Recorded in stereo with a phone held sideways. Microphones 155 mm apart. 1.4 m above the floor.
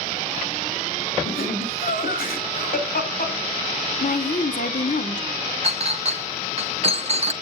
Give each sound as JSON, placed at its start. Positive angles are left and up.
{"t": 1.2, "sound": "laughter", "side_deg": 70, "distance_m": 2.5}
{"t": 4.0, "sound": "a woman speaking", "side_deg": 60, "distance_m": 1.3}
{"t": 5.6, "sound": "a clink", "side_deg": -45, "distance_m": 0.5}